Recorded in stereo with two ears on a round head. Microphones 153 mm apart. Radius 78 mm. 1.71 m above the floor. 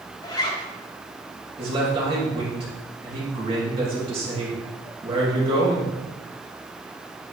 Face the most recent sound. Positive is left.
turn(degrees=-30)  # may be behind; listen again after turning